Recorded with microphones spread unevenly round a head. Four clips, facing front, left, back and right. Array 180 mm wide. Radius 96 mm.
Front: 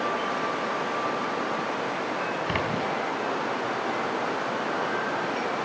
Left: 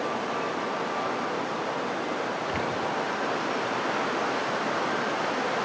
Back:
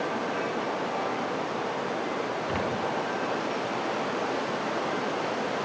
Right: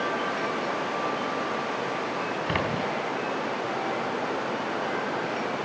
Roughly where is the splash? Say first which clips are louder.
Right 1 dB, front 1 dB; ahead right.